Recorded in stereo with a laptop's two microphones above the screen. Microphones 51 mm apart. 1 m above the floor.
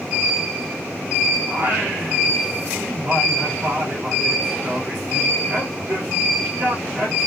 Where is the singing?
35° right (ahead or behind), 2 m.